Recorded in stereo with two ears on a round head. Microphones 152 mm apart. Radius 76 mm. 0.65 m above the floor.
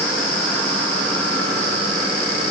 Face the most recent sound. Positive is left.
No sound to turn to.